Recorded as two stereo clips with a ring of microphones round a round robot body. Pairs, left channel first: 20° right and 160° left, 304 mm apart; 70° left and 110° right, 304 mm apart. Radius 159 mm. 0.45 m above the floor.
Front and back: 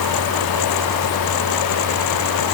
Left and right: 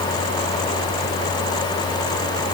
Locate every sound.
Only background noise.